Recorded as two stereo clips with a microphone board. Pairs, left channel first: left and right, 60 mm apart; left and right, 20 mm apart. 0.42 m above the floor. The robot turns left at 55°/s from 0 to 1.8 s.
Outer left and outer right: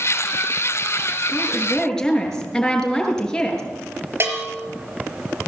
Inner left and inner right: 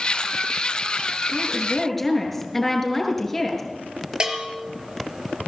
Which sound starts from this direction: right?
A bell, at 4.2 s.